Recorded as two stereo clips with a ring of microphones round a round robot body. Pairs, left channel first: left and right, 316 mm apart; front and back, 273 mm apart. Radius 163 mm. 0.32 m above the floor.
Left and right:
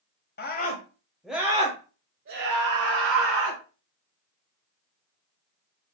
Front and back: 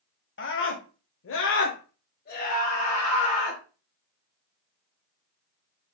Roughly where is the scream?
Ahead left.